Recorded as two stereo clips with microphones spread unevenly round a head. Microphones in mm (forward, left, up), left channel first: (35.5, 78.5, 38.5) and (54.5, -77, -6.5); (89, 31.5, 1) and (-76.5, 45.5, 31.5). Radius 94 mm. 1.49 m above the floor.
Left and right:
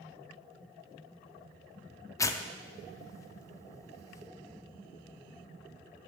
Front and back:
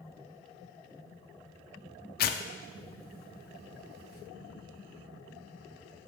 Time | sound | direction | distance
2.2 | tearing paper | 20° left | 0.5 m